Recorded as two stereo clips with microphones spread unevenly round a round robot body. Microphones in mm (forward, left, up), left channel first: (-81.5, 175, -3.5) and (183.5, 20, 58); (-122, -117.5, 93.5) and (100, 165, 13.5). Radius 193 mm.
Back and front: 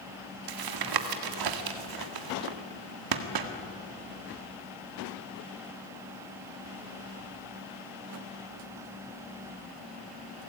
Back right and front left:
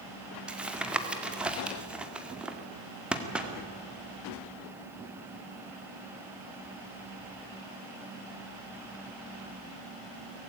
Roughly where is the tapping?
Ahead right.